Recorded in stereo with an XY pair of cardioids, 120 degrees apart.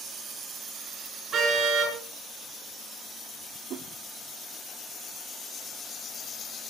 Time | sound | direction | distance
1.3 | a car horn | 45° right | 6.5 m
3.7 | a whoosh | 60° right | 0.8 m